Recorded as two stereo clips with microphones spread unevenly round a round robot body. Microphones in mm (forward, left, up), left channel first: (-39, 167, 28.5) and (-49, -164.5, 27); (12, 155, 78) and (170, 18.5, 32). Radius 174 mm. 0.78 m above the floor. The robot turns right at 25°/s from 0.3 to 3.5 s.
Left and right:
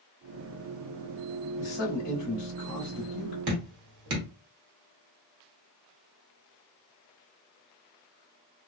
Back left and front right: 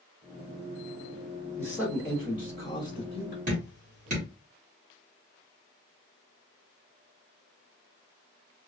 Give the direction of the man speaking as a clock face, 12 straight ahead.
11 o'clock.